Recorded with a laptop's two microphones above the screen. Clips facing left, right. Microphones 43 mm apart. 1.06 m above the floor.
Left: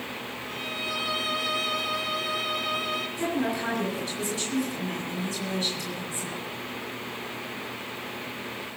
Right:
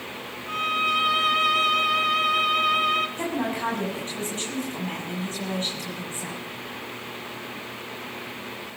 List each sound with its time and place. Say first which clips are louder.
0.5 s a violin: right 10 dB; 50° right (ahead or behind), 1.9 m
3.2 s a woman speaking: right 1 dB; 40° right (ahead or behind), 8 m